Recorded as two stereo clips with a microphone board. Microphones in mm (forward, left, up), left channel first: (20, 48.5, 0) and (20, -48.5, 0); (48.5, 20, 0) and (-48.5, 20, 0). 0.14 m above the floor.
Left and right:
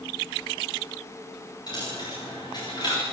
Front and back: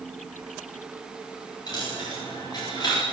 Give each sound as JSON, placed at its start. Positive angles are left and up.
{"t": 1.7, "sound": "a dropped coin", "azimuth_deg": 45, "distance_m": 9.5}